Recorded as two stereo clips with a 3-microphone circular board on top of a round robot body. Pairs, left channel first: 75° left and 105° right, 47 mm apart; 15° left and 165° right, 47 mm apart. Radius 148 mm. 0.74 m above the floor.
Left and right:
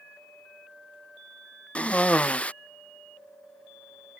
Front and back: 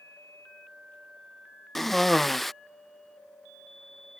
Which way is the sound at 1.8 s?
95° left.